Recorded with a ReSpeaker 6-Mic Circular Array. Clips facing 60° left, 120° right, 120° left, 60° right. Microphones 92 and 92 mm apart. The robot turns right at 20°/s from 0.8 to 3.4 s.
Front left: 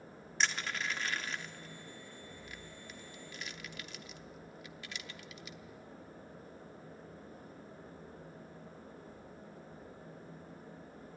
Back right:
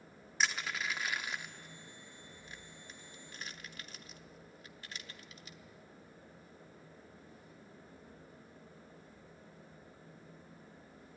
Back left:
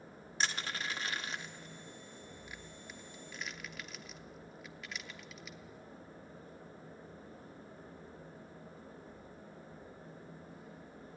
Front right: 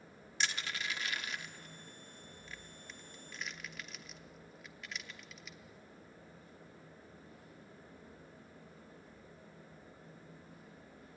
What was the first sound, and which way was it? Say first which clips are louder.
Crushing: even, back left 2 dB; 155° left.